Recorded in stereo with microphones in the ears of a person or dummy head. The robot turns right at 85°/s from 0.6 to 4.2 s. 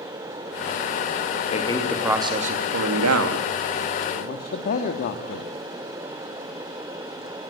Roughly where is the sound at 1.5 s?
Behind left.